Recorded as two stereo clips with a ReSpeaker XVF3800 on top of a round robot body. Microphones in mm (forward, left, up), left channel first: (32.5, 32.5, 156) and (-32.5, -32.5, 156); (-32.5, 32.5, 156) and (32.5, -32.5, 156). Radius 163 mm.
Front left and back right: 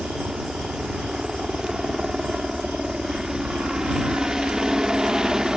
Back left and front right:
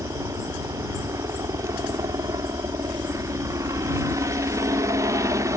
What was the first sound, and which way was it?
A helicopter, 55° right.